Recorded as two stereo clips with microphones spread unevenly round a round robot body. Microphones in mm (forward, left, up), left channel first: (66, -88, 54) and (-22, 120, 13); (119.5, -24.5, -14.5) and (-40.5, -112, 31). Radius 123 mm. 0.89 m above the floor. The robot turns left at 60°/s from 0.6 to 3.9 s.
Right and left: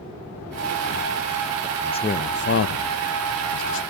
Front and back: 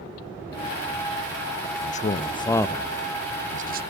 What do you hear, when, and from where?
1.6 s a man speaking: 20° left, 0.5 m; by 3.8 s 110° right, 0.5 m